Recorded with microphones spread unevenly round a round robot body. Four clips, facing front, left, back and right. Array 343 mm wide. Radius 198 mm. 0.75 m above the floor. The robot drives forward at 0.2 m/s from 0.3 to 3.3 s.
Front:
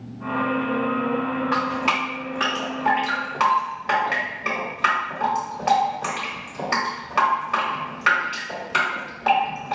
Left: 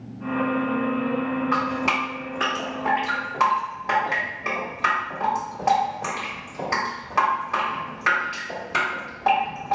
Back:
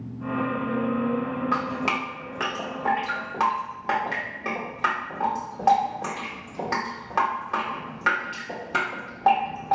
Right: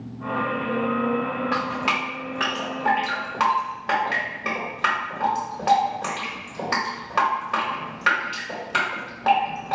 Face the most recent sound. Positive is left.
turn(degrees=175)